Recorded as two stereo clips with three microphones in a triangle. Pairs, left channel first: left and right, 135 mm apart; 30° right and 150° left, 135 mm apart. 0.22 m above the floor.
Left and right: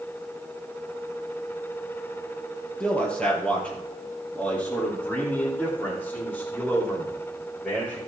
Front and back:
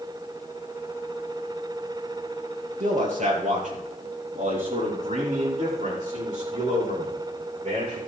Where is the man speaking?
175° left, 3.5 m; by 8.0 s 170° left, 11.5 m.